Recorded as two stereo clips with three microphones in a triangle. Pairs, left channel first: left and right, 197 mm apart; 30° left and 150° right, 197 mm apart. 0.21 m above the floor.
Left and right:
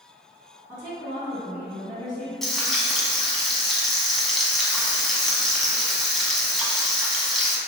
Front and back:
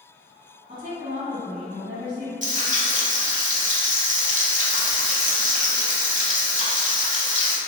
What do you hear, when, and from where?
0.7 s a woman speaking: 145° right, 1.8 m
2.4 s frying: straight behind, 0.5 m